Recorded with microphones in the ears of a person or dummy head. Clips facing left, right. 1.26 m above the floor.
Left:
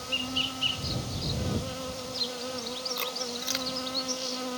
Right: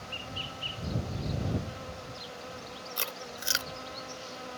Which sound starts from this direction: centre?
Chewing, at 3.0 s.